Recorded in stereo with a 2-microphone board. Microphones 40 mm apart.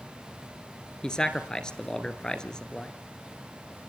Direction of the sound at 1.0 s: 20° left (ahead or behind).